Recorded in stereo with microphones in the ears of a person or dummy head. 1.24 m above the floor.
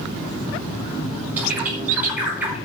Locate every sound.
1.4 s a bird: 10° right (ahead or behind), 5 m